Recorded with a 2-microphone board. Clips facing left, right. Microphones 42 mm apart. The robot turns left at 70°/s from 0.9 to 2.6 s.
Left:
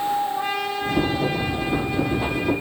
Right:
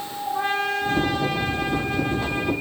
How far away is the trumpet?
About 4 m.